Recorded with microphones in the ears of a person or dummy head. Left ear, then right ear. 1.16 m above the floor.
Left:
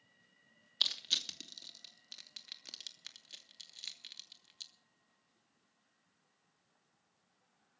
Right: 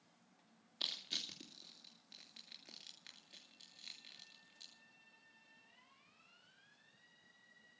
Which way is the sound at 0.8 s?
35° left (ahead or behind).